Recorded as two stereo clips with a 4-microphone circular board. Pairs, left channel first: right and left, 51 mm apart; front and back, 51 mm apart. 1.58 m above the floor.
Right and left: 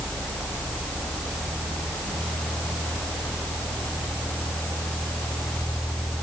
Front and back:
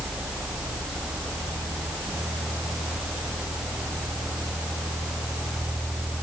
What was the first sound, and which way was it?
Only background noise.